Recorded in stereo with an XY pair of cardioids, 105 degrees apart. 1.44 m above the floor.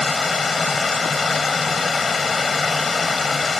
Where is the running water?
35° left.